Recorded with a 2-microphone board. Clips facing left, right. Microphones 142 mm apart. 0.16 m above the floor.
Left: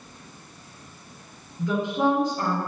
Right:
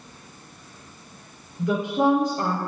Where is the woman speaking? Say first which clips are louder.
Right 2 dB; 15° right (ahead or behind), 2 m.